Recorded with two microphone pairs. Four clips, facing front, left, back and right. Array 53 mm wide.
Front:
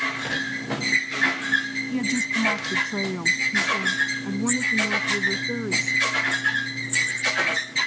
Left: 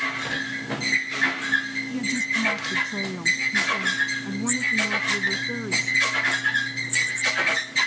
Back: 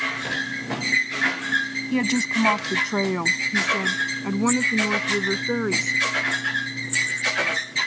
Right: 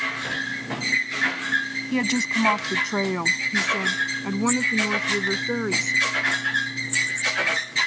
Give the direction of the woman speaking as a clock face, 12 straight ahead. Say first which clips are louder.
Right 3 dB, back 3 dB; 5 o'clock.